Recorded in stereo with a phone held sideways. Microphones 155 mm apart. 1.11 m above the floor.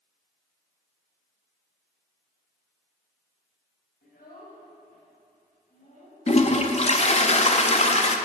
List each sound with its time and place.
4.0 s a child speaking: 80° left, 4.5 m; by 6.2 s 55° left (ahead or behind), 6 m
6.3 s a toilet flushing: 45° left (ahead or behind), 0.7 m